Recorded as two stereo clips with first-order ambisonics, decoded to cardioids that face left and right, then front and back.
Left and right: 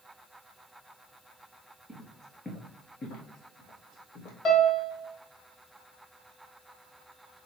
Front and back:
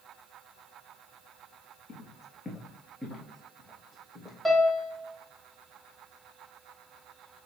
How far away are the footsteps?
About 1.1 m.